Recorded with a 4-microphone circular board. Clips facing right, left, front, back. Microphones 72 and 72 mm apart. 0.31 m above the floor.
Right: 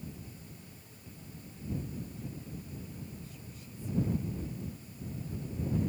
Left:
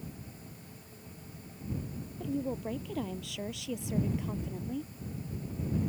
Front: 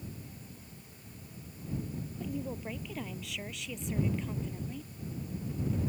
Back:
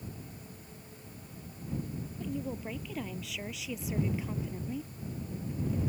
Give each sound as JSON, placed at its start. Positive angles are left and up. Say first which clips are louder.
{"t": 2.2, "sound": "a woman speaking", "louder": "left 11 dB, back 1 dB", "azimuth_deg": 85}